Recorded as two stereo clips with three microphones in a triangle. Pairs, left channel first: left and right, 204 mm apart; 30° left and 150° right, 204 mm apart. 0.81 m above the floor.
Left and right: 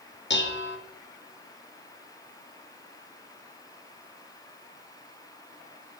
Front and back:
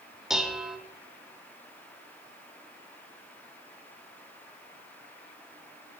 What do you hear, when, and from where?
0.3 s dishes clattering: 125° left, 0.7 m